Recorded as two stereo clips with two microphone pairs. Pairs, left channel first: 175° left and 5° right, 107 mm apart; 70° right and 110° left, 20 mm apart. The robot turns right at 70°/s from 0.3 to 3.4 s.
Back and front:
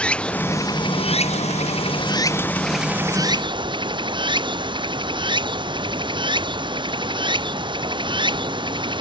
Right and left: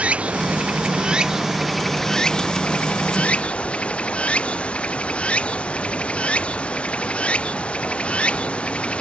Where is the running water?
95° left; by 9.0 s 45° right.